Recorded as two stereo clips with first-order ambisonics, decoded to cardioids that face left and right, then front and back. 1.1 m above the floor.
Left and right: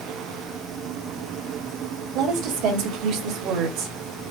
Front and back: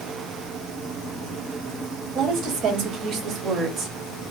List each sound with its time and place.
2.1 s a woman speaking: 120° right, 3 m; by 4.0 s 105° right, 1.6 m